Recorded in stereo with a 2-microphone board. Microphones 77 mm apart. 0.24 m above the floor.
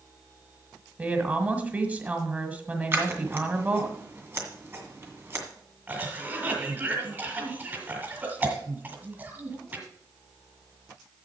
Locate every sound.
1.0 s a woman speaking: 20° right (ahead or behind), 1.6 m
2.9 s scissors: 35° right (ahead or behind), 2 m
5.9 s a cough: 25° right (ahead or behind), 1.6 m